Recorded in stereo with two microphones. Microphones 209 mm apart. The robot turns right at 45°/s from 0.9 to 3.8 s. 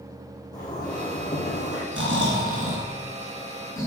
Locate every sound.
0.5 s a zipper: 15° left, 3.5 m; by 1.8 s 60° left, 3.5 m
1.9 s snoring: 70° right, 3.5 m; by 3.9 s 15° left, 3.5 m